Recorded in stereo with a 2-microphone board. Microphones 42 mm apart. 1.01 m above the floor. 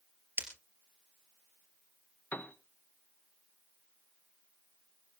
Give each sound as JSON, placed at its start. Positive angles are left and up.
{"t": 0.4, "sound": "breaking glass", "side_deg": -55, "distance_m": 3.0}
{"t": 2.3, "sound": "a piano", "side_deg": 50, "distance_m": 1.0}